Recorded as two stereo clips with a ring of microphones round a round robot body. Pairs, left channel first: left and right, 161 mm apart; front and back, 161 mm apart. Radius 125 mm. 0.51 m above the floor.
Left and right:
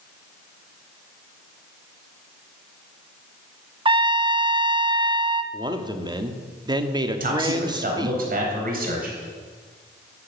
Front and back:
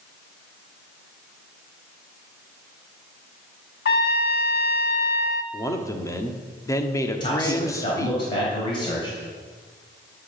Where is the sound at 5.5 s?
55° right, 1.1 m.